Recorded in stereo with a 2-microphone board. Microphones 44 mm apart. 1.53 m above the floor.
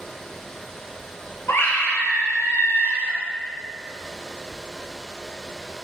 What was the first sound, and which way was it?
A scream, 65° left (ahead or behind).